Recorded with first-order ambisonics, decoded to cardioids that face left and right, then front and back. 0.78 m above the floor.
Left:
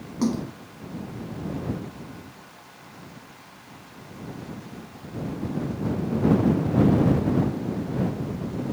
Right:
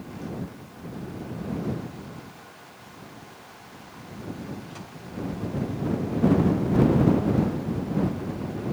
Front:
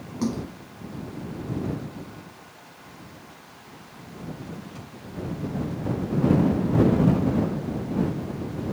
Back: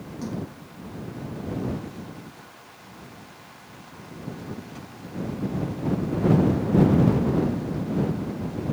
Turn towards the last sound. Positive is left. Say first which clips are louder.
# left 10 dB, front 5 dB
turn(degrees=60)